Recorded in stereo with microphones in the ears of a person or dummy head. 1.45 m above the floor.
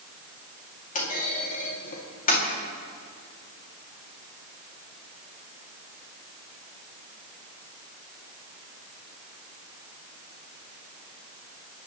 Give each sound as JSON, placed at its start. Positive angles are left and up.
{"t": 0.9, "sound": "a clunk", "side_deg": 45, "distance_m": 2.5}